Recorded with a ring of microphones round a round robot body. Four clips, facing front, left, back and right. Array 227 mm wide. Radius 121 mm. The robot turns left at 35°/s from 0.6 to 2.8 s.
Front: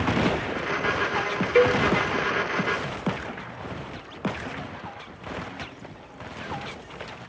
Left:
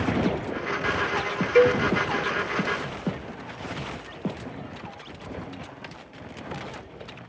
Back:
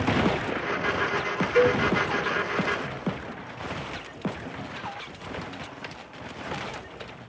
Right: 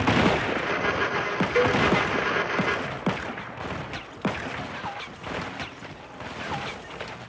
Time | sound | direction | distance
1.6 | a cowbell | 30° left | 1.4 m